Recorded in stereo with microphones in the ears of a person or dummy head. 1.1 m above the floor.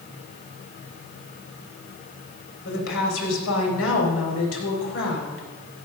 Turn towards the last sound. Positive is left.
turn(degrees=85)